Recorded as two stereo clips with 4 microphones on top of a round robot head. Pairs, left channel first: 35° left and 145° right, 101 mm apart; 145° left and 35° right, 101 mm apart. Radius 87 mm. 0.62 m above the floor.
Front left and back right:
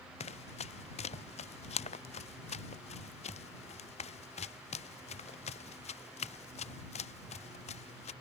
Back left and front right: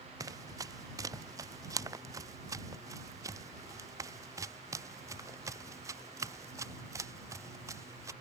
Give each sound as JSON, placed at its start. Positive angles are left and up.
{"t": 0.2, "sound": "running footsteps", "azimuth_deg": 20}